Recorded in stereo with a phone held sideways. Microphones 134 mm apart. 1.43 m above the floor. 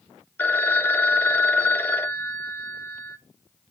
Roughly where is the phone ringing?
Centre.